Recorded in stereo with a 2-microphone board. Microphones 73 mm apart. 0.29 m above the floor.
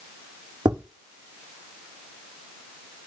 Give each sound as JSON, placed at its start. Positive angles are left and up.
{"t": 0.7, "sound": "tapping", "side_deg": -85, "distance_m": 6.5}